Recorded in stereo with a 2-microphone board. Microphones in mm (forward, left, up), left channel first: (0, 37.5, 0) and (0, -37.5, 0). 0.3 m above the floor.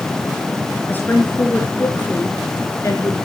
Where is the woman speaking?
25° left (ahead or behind), 4.5 m; by 3.1 s 45° left (ahead or behind), 4.5 m.